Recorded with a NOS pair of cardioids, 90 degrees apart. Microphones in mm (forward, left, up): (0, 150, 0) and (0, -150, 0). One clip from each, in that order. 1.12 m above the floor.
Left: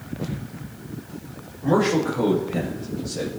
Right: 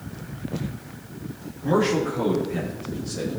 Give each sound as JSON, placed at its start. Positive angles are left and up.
{"t": 1.6, "sound": "a man speaking", "azimuth_deg": 15, "distance_m": 1.8}